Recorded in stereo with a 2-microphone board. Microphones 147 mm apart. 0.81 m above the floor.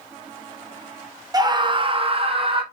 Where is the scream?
25° right (ahead or behind), 0.9 m; by 2.6 s 35° right (ahead or behind), 0.9 m.